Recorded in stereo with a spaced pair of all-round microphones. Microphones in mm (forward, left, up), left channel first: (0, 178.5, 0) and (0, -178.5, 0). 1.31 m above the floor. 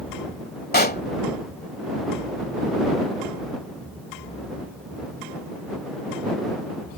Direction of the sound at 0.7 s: 25° left (ahead or behind).